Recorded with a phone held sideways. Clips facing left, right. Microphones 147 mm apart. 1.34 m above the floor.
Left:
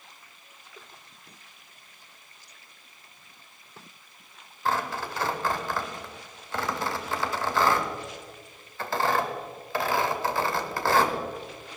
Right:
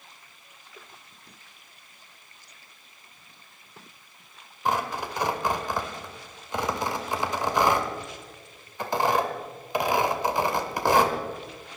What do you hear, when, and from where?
4.7 s tearing paper: 15° right (ahead or behind), 1.6 m